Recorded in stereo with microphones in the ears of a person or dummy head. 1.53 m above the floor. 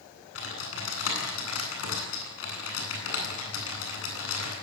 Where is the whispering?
No whispering in this recording.